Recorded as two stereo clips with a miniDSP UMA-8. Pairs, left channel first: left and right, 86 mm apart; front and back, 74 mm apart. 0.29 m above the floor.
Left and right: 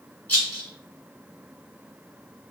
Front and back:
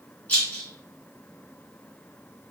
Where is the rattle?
50° left, 1.6 m.